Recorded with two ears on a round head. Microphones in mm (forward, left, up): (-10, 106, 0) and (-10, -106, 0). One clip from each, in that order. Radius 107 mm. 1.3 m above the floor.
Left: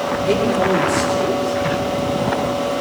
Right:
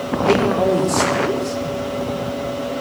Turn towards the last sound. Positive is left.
turn(degrees=-20)  # may be behind; listen again after turning